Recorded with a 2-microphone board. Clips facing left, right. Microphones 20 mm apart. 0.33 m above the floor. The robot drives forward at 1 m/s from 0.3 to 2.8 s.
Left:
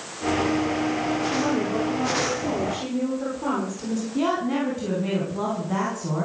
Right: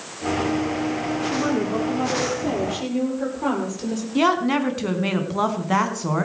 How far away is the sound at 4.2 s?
About 3.5 m.